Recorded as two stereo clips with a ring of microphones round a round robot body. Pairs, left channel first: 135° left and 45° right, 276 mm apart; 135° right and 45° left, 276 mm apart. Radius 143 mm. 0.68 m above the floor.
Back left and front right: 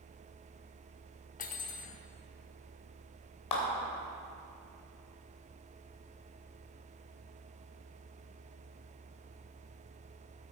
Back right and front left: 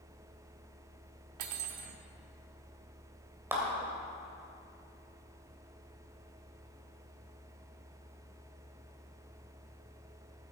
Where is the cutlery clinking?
70° left, 0.9 m.